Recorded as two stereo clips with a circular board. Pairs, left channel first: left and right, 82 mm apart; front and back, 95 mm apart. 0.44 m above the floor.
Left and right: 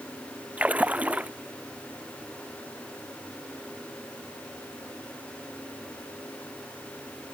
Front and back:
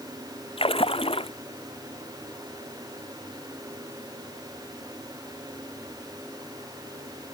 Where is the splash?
15° right.